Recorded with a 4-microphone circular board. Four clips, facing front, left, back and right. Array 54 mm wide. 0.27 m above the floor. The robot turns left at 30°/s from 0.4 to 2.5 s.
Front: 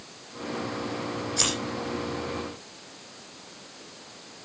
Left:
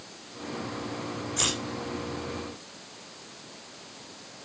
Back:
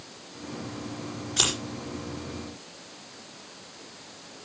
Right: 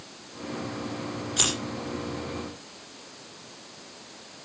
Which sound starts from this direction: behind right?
Scissors, at 1.4 s.